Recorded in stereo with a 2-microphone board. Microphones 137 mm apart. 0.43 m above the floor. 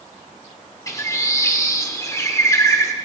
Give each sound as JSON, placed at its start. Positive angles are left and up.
{"t": 0.9, "sound": "a bird", "side_deg": 20, "distance_m": 0.9}